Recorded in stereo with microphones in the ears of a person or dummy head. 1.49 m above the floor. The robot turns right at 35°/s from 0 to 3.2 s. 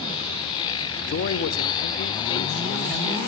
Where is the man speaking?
115° left, 0.5 m; by 3.2 s 175° right, 0.5 m.